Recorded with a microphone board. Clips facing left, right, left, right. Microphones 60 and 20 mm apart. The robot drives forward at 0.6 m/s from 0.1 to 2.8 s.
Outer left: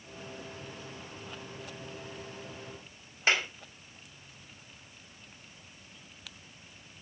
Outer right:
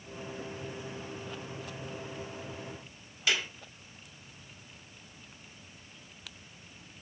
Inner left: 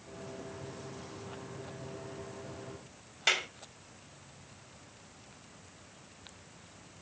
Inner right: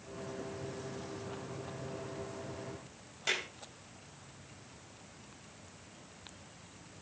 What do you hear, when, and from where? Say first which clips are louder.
3.3 s a clap: outer left 3 dB, inner left 5 dB; 40° left (ahead or behind), 4 m